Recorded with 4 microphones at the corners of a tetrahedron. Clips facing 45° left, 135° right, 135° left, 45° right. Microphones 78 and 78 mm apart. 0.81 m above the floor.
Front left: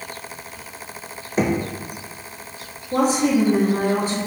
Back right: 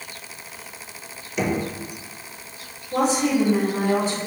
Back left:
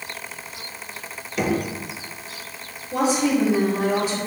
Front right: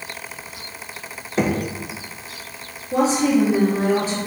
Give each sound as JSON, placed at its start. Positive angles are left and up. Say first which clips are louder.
{"t": 1.4, "sound": "knocking", "louder": "front left 3 dB, front right 2 dB", "azimuth_deg": 0, "distance_m": 0.6}
{"t": 2.9, "sound": "a woman speaking", "louder": "front left 2 dB, front right 3 dB", "azimuth_deg": 5, "distance_m": 1.1}